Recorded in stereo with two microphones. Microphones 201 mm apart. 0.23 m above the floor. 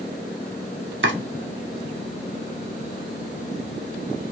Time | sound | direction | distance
1.0 | chopping | 70° right (ahead or behind) | 0.6 m